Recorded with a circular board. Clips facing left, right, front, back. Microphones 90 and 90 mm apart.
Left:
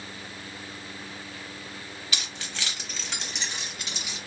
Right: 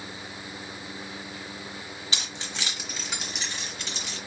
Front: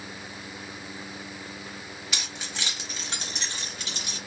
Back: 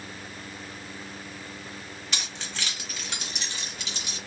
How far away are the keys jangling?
About 1.0 m.